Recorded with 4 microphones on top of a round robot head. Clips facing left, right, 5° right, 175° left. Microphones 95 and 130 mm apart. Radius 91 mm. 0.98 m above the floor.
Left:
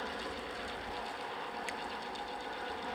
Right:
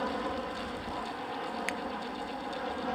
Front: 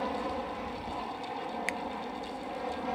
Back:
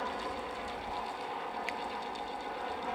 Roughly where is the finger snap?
Ahead right.